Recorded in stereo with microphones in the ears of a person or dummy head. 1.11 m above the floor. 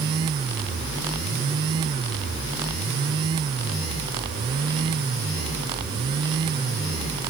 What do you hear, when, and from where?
Only background noise.